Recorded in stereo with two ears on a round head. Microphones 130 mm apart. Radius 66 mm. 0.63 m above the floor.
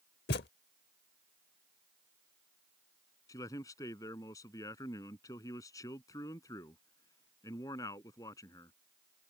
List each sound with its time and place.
0.3 s a thud: 85° left
3.3 s a man speaking: 25° left (ahead or behind)